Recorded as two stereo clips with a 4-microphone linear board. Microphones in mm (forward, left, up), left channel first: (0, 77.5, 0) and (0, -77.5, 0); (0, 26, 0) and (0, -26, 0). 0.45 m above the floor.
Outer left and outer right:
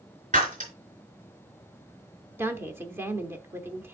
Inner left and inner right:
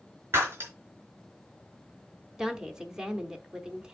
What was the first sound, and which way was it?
Breaking glass, 50° right (ahead or behind).